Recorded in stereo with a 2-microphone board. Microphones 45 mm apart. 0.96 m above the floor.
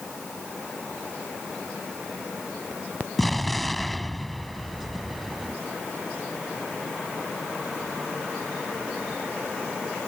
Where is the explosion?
5° left (ahead or behind).